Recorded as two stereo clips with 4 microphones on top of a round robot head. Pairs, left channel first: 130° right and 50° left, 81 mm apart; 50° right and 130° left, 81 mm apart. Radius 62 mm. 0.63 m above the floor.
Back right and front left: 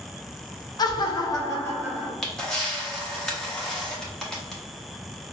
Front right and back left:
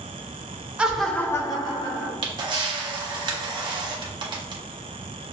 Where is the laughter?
155° right, 1.0 m; by 2.1 s 55° right, 1.4 m.